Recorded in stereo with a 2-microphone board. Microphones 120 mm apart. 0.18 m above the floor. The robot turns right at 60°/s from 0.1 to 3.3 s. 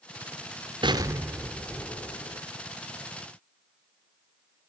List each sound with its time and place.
0.8 s an explosion: 40° right, 0.8 m; by 2.4 s 55° left, 0.8 m